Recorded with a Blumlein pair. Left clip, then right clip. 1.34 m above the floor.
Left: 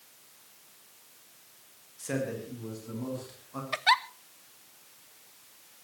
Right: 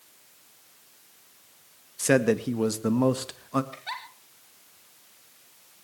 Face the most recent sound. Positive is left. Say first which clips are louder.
# left 12 dB
turn(degrees=55)